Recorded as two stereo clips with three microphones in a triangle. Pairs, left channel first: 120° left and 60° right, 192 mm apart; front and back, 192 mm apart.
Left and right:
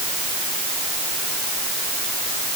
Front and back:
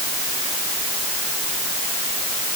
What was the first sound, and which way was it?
Only background noise.